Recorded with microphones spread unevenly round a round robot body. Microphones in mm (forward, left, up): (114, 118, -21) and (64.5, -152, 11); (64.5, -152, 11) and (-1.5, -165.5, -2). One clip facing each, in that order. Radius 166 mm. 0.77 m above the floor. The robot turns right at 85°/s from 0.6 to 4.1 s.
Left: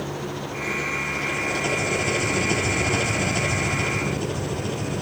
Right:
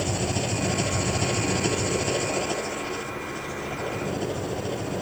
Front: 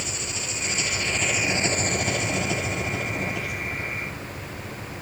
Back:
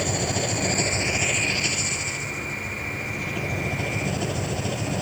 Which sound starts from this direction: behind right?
An engine running, at 0.0 s.